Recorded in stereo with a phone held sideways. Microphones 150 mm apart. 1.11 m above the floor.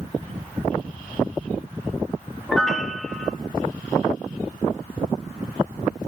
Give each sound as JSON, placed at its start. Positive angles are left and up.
{"t": 2.5, "sound": "a piano", "side_deg": 0, "distance_m": 2.5}